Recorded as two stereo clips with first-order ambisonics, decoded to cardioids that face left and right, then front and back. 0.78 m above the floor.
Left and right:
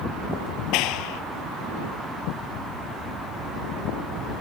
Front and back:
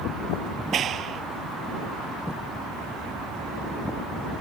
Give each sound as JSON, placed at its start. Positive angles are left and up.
{"t": 0.7, "sound": "a clap", "azimuth_deg": 120}